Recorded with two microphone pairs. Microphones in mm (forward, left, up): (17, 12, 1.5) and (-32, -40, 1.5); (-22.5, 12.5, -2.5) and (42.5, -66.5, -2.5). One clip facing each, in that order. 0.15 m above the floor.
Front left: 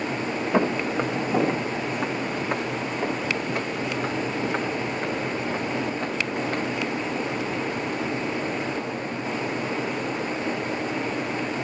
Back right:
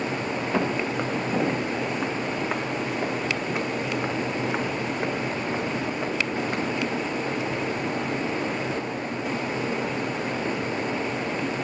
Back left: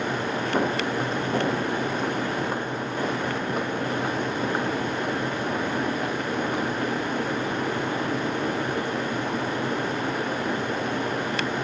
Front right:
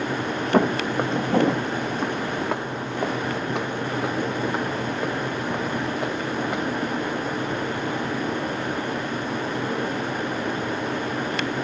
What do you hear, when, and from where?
0.5 s footsteps: 30° right, 2 m; by 6.6 s 60° right, 5.5 m